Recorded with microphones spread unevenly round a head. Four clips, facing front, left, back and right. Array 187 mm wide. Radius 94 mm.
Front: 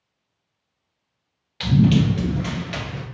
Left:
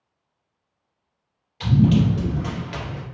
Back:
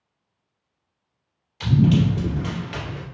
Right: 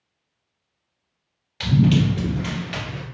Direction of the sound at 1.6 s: 70° right.